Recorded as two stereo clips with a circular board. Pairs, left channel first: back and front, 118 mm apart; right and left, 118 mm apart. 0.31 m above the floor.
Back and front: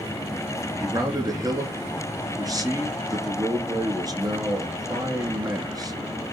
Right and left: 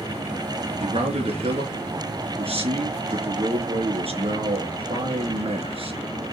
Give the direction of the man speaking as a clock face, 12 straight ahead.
10 o'clock.